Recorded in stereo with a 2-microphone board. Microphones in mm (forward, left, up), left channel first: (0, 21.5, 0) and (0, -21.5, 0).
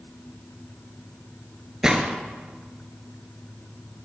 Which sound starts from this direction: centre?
A gunshot, at 1.8 s.